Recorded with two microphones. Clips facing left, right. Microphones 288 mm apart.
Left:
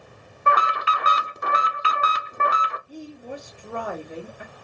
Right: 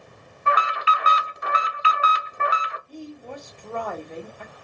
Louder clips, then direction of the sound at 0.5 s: Left 1 dB; 60° left (ahead or behind).